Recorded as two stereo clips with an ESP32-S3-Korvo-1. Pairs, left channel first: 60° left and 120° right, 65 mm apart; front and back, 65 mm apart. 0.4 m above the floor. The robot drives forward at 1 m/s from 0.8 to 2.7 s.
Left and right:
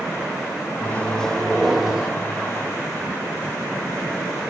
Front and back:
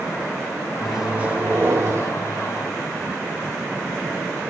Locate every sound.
0.8 s a microwave: 85° left, 0.9 m; by 2.1 s 160° left, 1.6 m